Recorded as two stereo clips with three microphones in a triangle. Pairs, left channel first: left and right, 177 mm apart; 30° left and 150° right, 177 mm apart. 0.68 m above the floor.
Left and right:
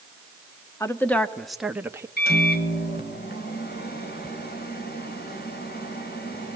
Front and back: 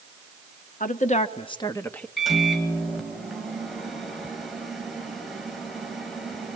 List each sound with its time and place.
0.8 s a woman speaking: 20° left, 1.3 m; by 2.1 s 45° right, 0.9 m
2.2 s a microwave: 120° left, 2.5 m